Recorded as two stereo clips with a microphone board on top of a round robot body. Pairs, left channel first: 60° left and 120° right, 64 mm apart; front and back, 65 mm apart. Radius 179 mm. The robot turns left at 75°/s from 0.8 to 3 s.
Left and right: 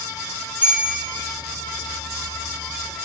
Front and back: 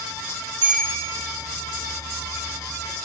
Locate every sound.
0.6 s a bell: 175° left, 5 m; by 0.9 s 160° left, 5 m